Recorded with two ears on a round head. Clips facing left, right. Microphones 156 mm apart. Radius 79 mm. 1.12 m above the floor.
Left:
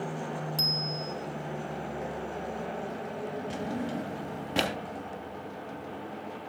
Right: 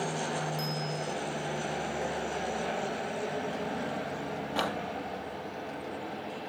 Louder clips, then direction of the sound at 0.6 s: Right 1 dB; 40° left (ahead or behind).